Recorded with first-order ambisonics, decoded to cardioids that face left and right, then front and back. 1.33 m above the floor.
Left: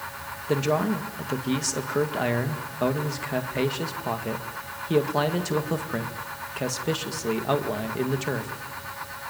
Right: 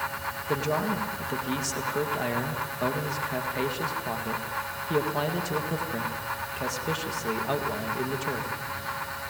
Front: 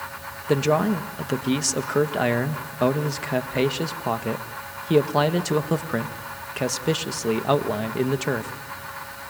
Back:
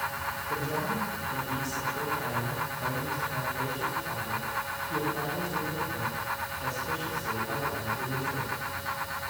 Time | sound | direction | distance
0.5 | a man speaking | 15° left | 1.9 m